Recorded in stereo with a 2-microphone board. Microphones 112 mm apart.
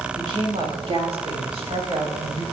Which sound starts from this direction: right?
A woman speaking, at 0.1 s.